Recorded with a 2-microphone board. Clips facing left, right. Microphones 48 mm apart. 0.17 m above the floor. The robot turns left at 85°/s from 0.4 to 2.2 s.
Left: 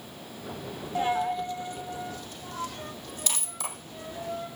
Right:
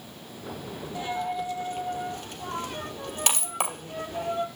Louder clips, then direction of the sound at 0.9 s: Left 4 dB; 30° left (ahead or behind).